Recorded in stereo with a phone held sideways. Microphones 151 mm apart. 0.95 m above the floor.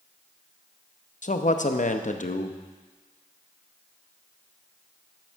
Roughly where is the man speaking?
Left.